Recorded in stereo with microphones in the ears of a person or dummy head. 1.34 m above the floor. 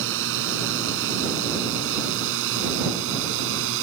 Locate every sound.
0.0 s a drone: 65° right (ahead or behind)